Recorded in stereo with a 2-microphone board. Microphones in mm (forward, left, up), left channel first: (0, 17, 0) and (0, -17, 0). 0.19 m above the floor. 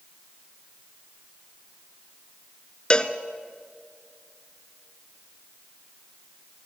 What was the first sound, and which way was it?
A cowbell, 30° left (ahead or behind).